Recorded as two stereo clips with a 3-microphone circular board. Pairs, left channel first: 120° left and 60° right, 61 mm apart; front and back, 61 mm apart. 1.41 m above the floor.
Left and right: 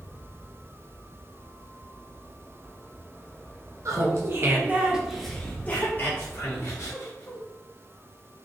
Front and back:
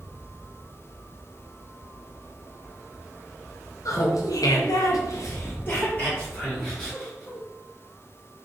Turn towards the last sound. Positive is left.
turn(degrees=85)